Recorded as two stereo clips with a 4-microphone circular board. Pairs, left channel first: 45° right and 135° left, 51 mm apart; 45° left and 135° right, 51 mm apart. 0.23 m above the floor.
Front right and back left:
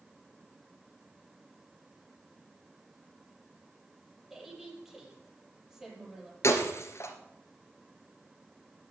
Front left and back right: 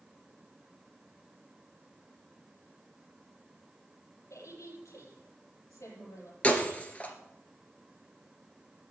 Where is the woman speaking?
50° left, 7 m.